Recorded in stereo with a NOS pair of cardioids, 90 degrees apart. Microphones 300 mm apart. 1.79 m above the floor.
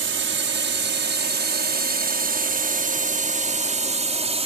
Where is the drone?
40° right; by 4.5 s 20° right.